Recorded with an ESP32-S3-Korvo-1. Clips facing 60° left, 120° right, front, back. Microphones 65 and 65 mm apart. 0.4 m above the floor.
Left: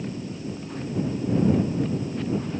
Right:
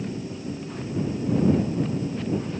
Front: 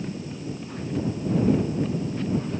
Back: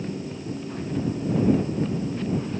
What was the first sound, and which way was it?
Only background noise.